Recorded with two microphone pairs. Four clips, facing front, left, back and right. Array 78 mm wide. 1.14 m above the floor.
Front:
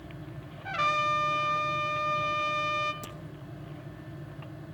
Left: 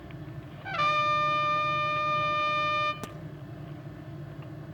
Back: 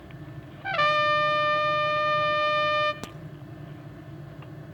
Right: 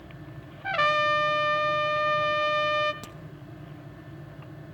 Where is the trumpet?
140° right, 1.3 m.